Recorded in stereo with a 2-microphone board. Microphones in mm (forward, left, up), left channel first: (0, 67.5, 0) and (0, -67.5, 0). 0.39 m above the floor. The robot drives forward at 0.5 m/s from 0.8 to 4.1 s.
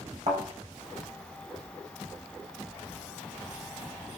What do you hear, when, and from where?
0.3 s a thud: 55° right (ahead or behind), 8.5 m